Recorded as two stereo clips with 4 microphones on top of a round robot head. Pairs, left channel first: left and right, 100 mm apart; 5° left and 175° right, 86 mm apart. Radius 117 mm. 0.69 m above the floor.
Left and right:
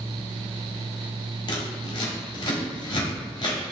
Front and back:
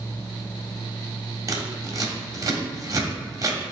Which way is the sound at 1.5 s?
135° left.